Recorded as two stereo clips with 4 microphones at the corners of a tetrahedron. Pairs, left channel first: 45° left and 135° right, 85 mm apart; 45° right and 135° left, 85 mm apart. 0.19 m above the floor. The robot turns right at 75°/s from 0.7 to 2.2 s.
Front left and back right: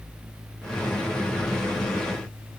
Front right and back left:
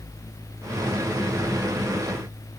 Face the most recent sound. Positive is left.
No sound to turn to.